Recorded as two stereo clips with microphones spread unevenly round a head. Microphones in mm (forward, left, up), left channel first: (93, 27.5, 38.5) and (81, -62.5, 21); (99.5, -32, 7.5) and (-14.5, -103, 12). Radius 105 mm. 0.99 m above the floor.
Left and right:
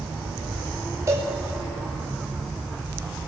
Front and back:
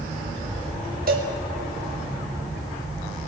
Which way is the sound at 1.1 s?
165° right.